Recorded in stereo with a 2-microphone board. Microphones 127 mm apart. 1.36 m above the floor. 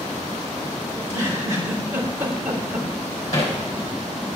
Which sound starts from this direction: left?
Hammering, at 3.3 s.